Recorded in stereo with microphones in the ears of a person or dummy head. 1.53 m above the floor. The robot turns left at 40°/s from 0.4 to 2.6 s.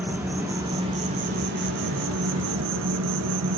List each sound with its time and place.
0.0 s an insect: 10° right, 1.9 m; by 3.6 s 100° right, 1.9 m